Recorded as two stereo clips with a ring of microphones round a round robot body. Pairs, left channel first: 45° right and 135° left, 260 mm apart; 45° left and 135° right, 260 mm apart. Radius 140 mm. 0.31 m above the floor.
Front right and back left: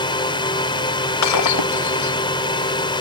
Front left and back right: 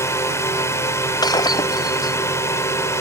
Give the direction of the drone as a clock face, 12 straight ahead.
12 o'clock.